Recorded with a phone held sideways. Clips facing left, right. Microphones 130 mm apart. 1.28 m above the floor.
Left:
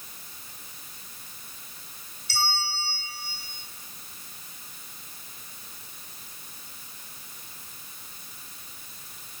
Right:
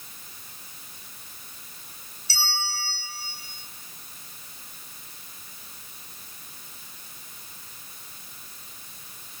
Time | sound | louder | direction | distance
2.3 | a bell | left 2 dB | 65° left (ahead or behind) | 3.5 m